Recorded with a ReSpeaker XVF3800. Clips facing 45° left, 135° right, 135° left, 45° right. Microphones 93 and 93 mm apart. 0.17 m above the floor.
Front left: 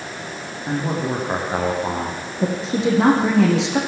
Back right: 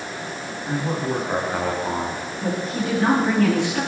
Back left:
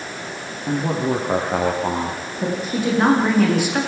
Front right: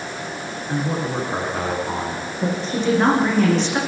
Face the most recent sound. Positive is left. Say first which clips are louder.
# front left 5 dB, even
turn(degrees=55)